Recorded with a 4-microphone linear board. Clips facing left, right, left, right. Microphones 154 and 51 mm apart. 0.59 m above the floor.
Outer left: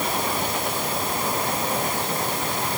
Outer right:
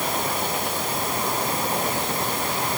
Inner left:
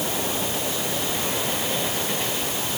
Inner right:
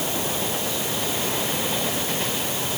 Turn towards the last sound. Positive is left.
No sound to turn to.